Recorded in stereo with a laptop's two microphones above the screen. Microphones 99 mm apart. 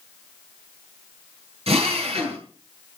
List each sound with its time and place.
1.7 s a drill: 80° right, 9 m